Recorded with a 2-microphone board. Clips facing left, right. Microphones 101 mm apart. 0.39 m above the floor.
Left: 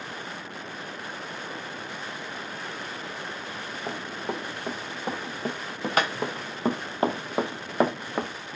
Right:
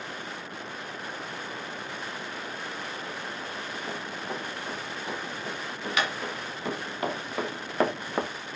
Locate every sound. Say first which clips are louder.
3.9 s running footsteps: left 5 dB; 55° left (ahead or behind), 6.5 m; by 8.3 s 15° right (ahead or behind), 1.4 m